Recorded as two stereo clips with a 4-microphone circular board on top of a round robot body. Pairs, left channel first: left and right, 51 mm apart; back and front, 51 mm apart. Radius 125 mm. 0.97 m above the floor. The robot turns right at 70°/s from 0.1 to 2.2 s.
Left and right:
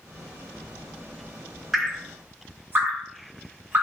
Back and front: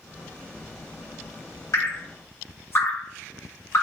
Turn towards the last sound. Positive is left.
turn(degrees=-140)